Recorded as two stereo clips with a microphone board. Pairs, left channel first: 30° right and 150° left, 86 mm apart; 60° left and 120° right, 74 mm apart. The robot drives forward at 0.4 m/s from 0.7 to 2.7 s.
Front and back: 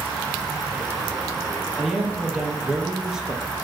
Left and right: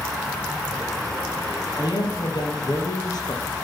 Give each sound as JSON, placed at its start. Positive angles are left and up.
{"t": 1.8, "sound": "a man speaking", "azimuth_deg": 60, "distance_m": 3.0}